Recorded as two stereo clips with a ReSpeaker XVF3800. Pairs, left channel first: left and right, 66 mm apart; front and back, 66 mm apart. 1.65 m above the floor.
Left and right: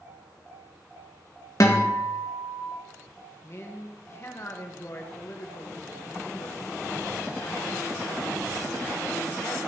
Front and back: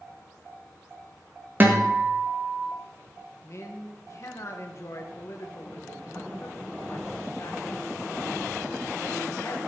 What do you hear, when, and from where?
1.6 s a guitar: 120° left, 1.7 m
3.4 s a man speaking: 40° left, 1.6 m